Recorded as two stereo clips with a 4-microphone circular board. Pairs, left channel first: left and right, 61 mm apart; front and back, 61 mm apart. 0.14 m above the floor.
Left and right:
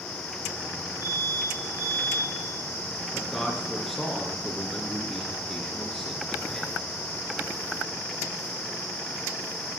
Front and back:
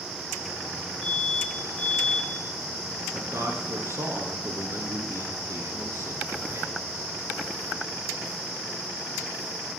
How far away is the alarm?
About 8.5 m.